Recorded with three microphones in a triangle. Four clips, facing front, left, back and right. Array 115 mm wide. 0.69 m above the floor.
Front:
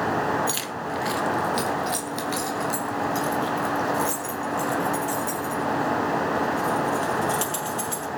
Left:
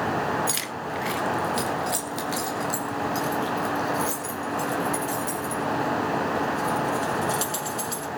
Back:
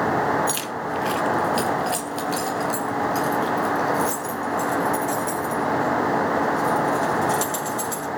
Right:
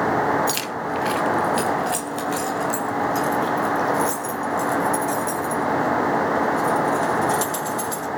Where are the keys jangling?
90° right, 1.3 m; by 8.1 s 55° right, 7 m.